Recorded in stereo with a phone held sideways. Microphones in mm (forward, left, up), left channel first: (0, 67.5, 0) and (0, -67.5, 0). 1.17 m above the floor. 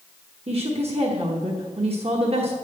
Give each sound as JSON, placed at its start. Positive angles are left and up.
{"t": 0.5, "sound": "a woman speaking", "side_deg": -45, "distance_m": 1.1}